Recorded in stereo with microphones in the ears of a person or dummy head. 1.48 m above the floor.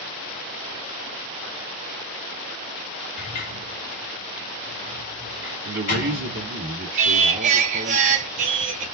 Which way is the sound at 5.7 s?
60° right (ahead or behind).